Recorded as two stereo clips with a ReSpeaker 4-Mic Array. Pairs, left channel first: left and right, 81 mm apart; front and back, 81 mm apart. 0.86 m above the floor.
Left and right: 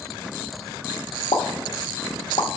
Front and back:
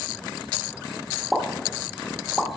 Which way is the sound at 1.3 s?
95° left.